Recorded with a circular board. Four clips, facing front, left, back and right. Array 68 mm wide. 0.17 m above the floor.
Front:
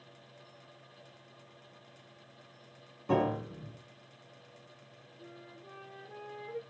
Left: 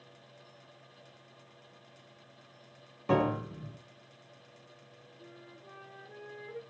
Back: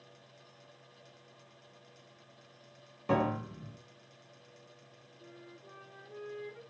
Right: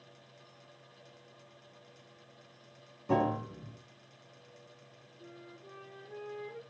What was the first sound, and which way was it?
A piano, 120° left.